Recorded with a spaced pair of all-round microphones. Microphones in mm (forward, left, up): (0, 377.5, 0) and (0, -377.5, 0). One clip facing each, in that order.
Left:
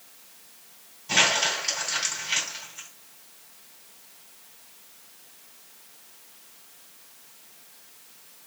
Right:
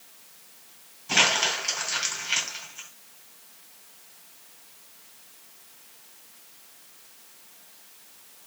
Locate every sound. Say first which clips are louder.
1.1 s crumpling: even; 20° left (ahead or behind), 2.5 m